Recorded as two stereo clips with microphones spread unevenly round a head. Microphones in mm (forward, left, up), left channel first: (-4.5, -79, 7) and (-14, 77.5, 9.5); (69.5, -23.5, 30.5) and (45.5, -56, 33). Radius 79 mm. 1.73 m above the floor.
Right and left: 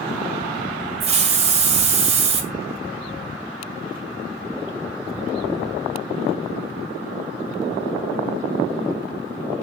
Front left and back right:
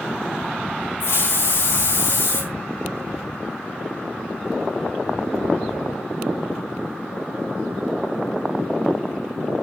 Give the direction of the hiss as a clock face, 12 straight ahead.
10 o'clock.